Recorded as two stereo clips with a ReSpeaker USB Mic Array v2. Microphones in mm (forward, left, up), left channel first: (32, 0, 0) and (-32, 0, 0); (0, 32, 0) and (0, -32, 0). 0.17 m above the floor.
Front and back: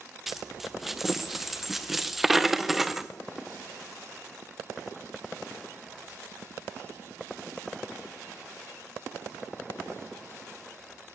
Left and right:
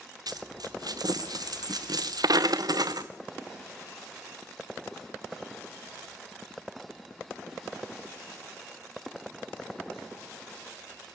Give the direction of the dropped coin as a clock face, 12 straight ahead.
3 o'clock.